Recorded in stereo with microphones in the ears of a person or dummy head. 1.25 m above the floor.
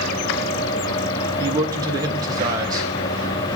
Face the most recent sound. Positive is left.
turn(degrees=-25)  # may be behind; listen again after turning